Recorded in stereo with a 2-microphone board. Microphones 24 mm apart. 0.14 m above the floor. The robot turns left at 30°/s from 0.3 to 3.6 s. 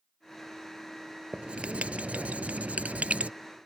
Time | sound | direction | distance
1.3 | writing | 55° right | ?